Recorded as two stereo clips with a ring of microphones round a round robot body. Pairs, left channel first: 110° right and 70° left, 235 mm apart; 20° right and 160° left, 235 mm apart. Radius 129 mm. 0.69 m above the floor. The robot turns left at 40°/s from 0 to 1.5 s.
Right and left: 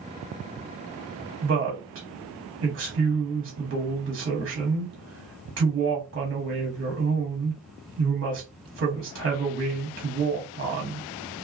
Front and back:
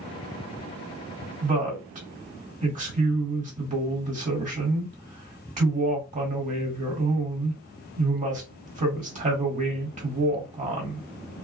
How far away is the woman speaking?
About 1.5 m.